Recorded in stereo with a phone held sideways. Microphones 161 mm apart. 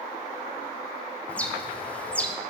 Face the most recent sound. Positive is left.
turn(degrees=10)  # may be behind; listen again after turning